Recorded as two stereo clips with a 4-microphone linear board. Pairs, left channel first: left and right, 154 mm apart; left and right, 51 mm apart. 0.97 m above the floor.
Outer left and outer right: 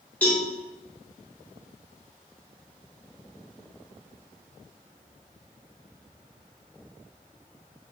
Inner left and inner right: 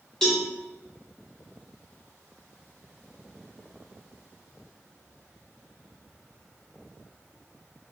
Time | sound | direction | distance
0.2 | a cowbell | 10° left (ahead or behind) | 0.7 m